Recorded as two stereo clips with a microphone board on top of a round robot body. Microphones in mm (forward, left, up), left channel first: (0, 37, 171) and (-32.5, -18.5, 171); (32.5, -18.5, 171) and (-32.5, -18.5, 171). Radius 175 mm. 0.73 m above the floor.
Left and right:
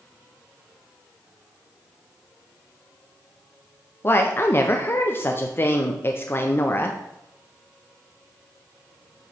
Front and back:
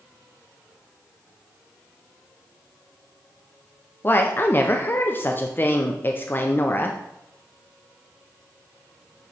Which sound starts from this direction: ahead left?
A woman speaking, at 4.0 s.